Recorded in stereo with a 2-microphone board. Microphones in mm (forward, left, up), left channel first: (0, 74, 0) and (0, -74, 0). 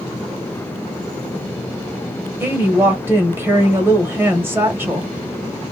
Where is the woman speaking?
15° right (ahead or behind), 1.1 m.